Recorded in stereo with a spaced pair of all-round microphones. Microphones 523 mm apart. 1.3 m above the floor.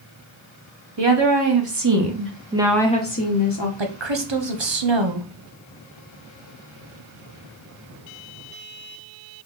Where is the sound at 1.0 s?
55° right (ahead or behind), 1.4 m; by 3.7 s 50° left (ahead or behind), 0.9 m.